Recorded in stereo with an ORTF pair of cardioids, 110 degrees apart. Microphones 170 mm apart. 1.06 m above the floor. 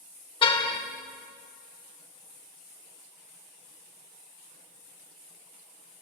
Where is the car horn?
30° left, 2.5 m.